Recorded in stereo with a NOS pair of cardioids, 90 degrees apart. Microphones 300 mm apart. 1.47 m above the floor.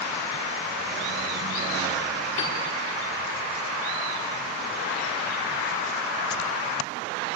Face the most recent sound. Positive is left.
turn(degrees=65)